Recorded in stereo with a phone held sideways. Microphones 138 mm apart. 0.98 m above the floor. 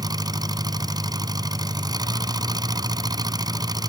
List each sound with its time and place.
0.0 s an engine running: 30° right (ahead or behind)